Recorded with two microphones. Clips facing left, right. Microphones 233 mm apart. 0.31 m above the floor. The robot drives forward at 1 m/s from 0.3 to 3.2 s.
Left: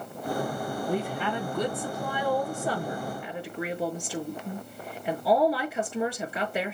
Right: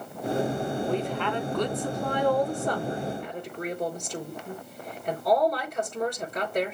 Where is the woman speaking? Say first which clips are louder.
Right 1 dB; 10° left (ahead or behind), 3 m; by 6.7 s 5° left (ahead or behind), 5.5 m.